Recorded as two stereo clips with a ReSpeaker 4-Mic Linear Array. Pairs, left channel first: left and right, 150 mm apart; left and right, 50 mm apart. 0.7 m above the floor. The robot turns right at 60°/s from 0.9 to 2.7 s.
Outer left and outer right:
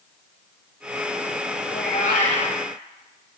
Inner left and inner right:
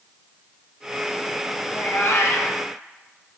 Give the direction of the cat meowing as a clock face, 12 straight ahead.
9 o'clock.